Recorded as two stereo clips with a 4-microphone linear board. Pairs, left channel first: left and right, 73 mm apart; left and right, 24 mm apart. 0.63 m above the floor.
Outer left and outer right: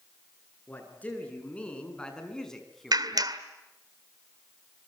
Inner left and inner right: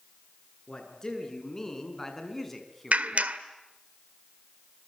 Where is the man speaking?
25° left (ahead or behind), 8 m; by 3.0 s centre (ahead or behind), 5.5 m.